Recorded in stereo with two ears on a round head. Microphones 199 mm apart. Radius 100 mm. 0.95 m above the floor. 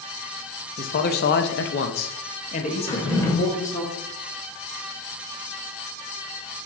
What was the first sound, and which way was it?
A man speaking, 40° left (ahead or behind).